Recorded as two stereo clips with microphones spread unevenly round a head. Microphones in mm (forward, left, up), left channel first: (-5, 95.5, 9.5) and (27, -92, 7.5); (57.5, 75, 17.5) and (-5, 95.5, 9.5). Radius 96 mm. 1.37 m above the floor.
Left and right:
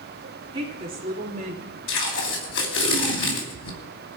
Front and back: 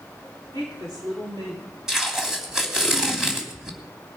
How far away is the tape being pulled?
About 3 m.